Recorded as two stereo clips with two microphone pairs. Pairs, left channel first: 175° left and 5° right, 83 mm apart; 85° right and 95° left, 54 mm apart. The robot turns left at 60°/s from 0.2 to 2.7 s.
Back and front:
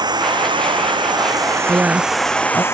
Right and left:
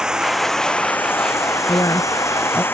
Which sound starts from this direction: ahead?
Running water, at 0.0 s.